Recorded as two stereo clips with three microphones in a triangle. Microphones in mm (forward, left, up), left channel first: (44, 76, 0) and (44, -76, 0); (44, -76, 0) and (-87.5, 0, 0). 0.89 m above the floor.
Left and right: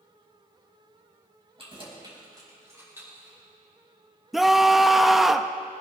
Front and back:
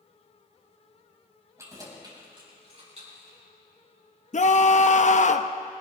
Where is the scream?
Straight ahead, 0.7 m.